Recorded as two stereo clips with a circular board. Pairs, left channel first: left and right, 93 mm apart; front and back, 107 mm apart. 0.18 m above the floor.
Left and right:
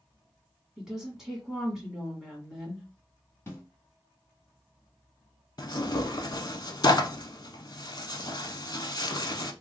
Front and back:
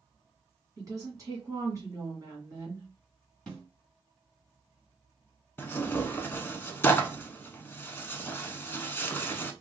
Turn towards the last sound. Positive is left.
turn(degrees=65)